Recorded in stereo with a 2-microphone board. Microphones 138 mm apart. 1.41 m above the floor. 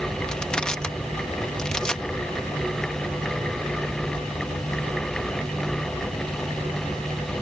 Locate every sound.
0.3 s crushing: 5° left (ahead or behind)